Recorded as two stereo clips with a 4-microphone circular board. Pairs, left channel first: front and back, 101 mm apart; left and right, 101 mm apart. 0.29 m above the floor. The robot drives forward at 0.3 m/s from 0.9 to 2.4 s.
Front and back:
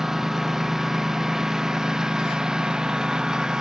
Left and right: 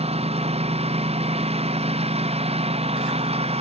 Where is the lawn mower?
95° right.